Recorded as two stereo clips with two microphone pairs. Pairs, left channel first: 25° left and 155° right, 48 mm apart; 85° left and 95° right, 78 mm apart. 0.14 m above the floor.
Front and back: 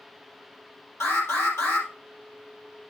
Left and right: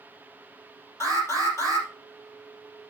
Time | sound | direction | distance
1.0 | an alarm | 35° left | 3 m